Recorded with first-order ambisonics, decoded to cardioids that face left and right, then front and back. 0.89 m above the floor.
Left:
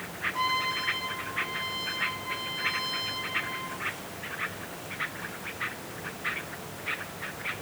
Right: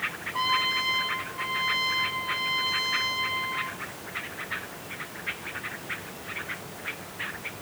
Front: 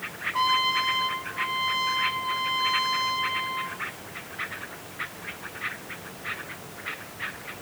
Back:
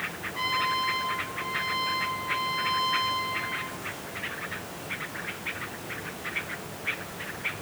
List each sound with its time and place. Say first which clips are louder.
0.3 s a trumpet: right 4 dB, front 4 dB; 15° right, 1.3 m